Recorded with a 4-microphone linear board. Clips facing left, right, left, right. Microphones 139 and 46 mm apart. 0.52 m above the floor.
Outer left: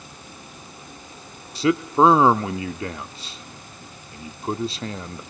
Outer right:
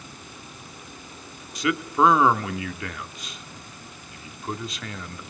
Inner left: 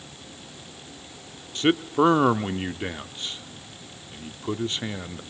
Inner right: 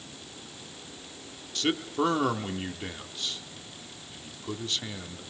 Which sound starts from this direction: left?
A man speaking, at 1.6 s.